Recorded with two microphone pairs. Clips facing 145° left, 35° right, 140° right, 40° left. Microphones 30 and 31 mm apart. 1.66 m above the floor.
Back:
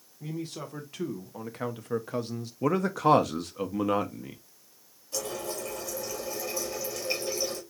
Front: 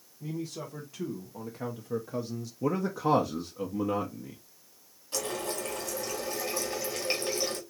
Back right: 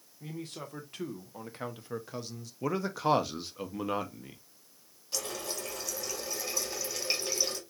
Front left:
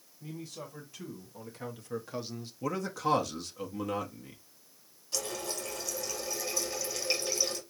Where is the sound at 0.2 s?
165° right, 2 m; by 2.5 s 95° left, 0.7 m.